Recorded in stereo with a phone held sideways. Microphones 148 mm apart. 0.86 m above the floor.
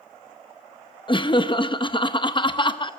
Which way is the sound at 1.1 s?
35° left (ahead or behind).